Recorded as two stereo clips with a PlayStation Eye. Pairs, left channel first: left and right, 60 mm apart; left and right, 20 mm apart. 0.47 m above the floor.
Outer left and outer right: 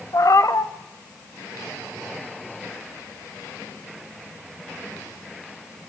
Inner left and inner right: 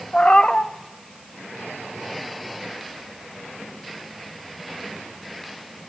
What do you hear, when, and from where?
0.1 s a cat meowing: 65° left (ahead or behind), 0.7 m